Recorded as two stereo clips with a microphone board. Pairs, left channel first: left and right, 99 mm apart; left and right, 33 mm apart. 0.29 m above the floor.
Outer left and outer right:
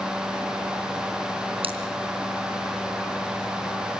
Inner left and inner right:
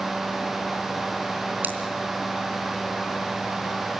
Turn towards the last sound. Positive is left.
turn(degrees=-65)  # may be behind; listen again after turning